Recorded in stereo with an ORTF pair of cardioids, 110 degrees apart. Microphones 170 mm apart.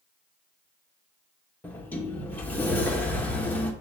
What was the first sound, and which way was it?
A sliding door, 10° left.